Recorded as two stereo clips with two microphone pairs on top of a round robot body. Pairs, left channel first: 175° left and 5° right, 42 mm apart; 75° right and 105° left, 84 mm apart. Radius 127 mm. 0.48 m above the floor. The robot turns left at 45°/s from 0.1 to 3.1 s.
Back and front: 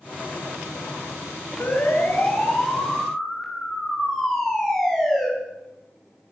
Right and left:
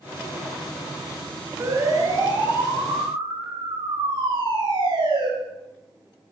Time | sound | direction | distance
1.6 | a siren | 165° left | 10 m